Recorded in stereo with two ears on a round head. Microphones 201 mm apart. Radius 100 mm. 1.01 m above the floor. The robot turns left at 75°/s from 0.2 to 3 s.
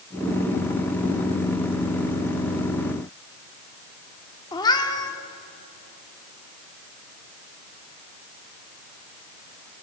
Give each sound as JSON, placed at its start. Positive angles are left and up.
{"t": 4.5, "sound": "a cat meowing", "side_deg": 20, "distance_m": 1.5}